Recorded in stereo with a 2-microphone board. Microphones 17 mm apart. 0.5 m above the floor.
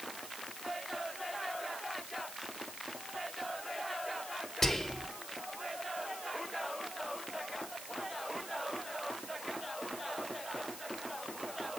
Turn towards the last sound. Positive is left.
turn(degrees=20)  # may be behind; listen again after turning